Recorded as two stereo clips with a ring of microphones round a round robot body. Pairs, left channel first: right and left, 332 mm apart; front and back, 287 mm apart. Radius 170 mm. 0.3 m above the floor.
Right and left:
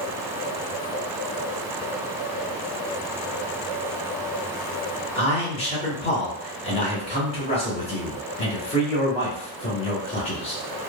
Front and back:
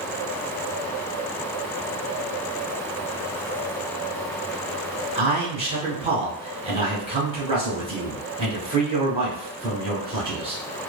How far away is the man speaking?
About 1.3 m.